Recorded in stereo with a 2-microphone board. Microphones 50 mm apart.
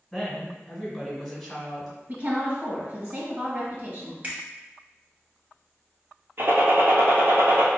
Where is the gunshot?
50° right (ahead or behind), 1.1 m.